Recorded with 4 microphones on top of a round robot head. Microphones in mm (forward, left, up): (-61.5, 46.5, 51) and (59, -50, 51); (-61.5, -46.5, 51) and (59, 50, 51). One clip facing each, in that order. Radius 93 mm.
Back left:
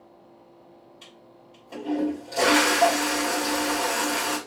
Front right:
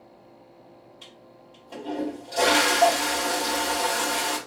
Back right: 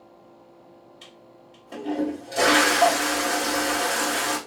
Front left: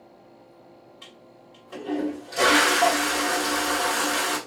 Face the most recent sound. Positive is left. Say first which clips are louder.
# front right 1 dB, even
turn(degrees=-130)